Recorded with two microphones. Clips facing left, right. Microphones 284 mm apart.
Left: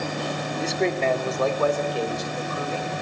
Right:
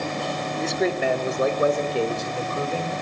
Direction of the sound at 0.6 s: 5° left (ahead or behind).